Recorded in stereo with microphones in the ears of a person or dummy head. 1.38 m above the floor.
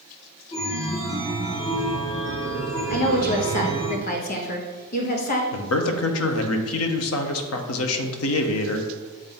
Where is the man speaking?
75° left (ahead or behind), 0.8 m.